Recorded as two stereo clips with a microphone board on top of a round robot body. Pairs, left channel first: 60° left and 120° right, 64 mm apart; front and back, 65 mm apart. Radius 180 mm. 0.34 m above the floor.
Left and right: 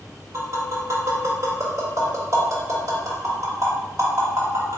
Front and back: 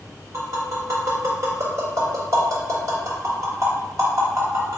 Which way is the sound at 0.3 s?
150° right.